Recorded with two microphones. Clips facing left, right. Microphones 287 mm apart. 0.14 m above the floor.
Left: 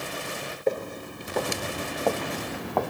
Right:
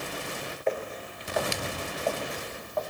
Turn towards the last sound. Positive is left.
turn(degrees=65)  # may be behind; listen again after turning